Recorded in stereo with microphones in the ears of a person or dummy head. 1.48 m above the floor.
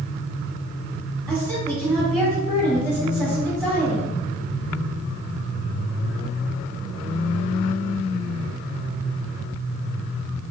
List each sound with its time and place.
1.3 s a woman speaking: 15° right (ahead or behind), 2.0 m